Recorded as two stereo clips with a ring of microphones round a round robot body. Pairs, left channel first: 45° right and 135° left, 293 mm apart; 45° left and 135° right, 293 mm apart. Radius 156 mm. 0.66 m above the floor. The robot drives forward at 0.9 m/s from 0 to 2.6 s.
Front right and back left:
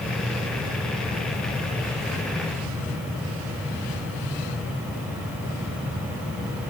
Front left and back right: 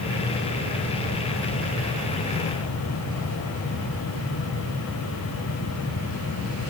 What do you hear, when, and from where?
Only background noise.